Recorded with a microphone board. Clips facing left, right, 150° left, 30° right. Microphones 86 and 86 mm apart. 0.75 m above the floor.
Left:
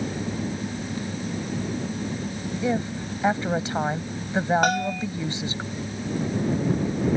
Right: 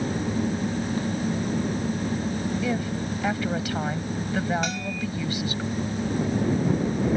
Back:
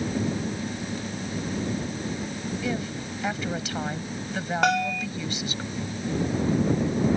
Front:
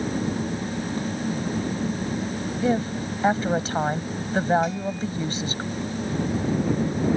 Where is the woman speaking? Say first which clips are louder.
Left 1 dB, front 10 dB; 25° left.